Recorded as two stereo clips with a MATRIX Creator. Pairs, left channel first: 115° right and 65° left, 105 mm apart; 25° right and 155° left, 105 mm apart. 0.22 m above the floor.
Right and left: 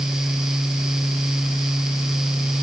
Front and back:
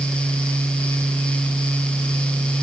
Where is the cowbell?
I don't hear a cowbell.